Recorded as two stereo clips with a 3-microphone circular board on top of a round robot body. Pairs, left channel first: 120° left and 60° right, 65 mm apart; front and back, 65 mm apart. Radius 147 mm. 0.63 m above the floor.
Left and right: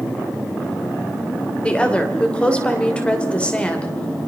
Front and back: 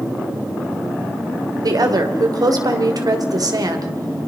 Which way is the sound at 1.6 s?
170° right.